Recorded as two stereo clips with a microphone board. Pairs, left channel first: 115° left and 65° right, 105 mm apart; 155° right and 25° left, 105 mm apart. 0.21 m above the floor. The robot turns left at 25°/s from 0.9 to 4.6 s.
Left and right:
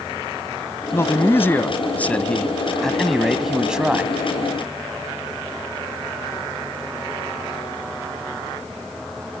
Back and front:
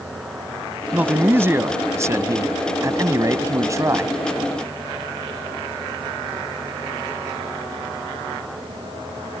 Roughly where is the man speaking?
Left.